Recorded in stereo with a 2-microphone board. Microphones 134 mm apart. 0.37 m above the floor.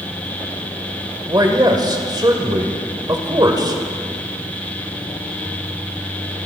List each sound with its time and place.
1.3 s a man speaking: 30° right (ahead or behind), 1.8 m